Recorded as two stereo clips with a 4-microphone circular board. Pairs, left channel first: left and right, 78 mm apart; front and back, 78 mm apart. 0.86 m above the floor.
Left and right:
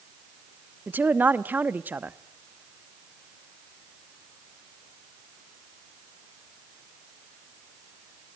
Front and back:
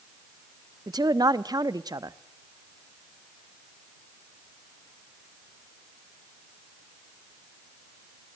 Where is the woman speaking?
155° right, 0.9 m.